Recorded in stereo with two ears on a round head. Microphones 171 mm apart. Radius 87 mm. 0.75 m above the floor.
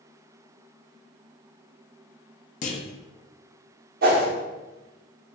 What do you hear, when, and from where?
2.6 s a clunk: 40° left (ahead or behind), 0.5 m
4.0 s a whoosh: 50° right (ahead or behind), 0.6 m